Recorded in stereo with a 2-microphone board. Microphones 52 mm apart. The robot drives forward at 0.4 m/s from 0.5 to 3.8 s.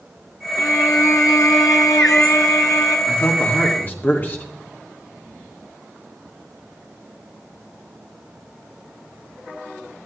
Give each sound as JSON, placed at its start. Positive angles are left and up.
{"t": 0.6, "sound": "a violin", "side_deg": 80, "distance_m": 2.0}
{"t": 3.1, "sound": "a man speaking", "side_deg": 40, "distance_m": 2.0}